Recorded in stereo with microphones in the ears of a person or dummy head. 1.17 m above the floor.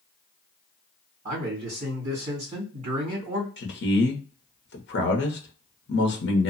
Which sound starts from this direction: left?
A man speaking, at 3.6 s.